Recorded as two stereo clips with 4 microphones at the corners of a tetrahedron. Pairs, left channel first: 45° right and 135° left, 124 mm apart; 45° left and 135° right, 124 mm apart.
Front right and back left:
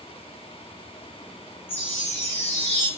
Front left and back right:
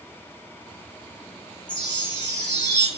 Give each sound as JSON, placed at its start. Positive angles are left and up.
{"t": 1.7, "sound": "a chime", "azimuth_deg": 20, "distance_m": 1.9}